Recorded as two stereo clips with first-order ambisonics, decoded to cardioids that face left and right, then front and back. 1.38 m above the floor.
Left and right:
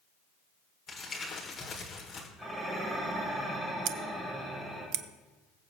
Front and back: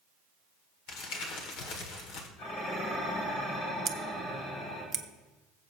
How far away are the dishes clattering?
About 5.5 m.